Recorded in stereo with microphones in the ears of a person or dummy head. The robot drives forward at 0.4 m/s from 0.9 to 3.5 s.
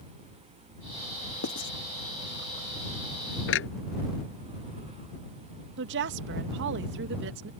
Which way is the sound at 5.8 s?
55° right (ahead or behind).